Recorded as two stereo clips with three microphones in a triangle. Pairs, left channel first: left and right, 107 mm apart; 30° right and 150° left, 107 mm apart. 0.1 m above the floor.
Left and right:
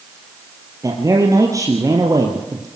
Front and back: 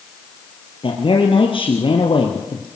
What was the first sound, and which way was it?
A man speaking, 40° right.